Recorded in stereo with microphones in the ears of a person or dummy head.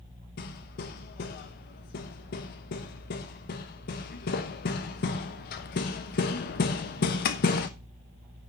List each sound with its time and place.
0.4 s hammering: 45° left (ahead or behind), 1.1 m